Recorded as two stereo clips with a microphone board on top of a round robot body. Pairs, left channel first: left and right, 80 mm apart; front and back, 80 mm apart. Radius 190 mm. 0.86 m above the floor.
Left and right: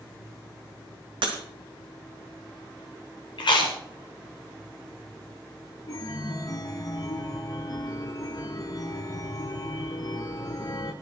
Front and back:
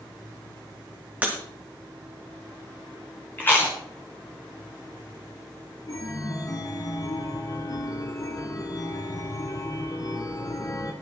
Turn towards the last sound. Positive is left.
turn(degrees=45)